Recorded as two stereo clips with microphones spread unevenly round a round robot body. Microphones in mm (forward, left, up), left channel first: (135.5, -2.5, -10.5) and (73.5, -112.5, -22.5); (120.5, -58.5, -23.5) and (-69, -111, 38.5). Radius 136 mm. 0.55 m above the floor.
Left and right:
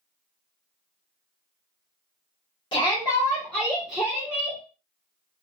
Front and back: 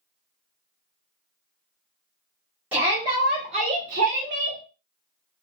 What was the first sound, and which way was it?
A shout, 90° left.